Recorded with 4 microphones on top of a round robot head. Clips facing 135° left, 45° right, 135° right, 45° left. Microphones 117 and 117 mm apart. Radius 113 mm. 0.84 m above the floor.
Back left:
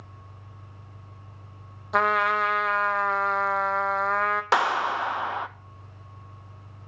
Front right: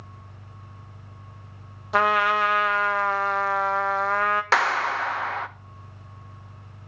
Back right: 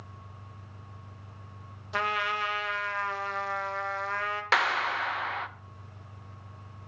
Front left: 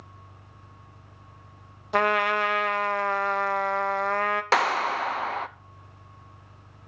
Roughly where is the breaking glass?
I don't hear breaking glass.